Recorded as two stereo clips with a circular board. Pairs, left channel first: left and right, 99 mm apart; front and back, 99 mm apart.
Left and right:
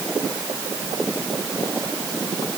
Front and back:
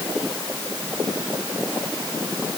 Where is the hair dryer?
I don't hear a hair dryer.